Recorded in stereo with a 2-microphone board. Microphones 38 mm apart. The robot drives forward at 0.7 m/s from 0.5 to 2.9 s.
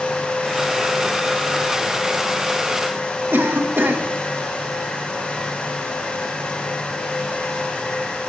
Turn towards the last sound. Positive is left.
turn(degrees=-65)  # may be behind; listen again after turning